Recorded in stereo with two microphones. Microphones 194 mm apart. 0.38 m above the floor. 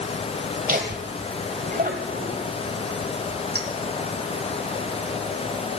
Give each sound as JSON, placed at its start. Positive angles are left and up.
{"t": 0.7, "sound": "laughter", "side_deg": -45, "distance_m": 1.6}
{"t": 3.5, "sound": "a clink", "side_deg": -60, "distance_m": 3.0}